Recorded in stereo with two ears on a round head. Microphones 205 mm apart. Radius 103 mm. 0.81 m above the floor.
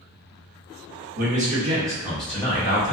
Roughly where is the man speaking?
Right.